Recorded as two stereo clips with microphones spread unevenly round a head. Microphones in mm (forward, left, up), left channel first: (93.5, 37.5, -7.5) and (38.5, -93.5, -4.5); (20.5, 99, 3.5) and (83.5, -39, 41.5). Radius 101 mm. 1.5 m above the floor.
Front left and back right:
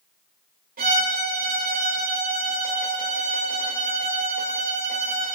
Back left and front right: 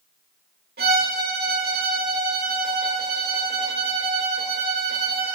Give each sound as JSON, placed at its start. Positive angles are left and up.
{"t": 0.8, "sound": "a violin", "azimuth_deg": -105, "distance_m": 3.5}